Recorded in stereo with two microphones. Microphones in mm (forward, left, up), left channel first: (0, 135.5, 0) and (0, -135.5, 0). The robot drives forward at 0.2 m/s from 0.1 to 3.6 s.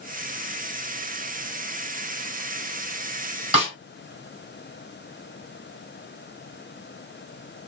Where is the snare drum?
20° right (ahead or behind), 2.0 m.